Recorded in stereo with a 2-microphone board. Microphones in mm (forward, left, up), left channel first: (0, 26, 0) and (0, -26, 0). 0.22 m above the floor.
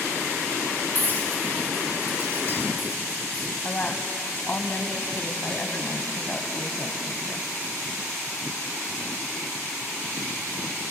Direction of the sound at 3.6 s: 35° left (ahead or behind).